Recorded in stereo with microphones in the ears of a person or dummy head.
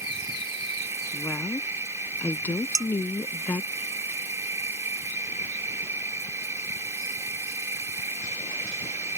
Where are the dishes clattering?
20° right (ahead or behind).